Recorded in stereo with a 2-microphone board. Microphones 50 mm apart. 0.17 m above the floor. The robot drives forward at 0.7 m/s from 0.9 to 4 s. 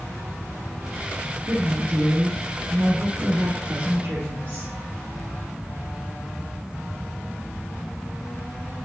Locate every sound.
1.5 s a woman speaking: 50° right (ahead or behind), 1.9 m; by 4.7 s 30° right (ahead or behind), 2.5 m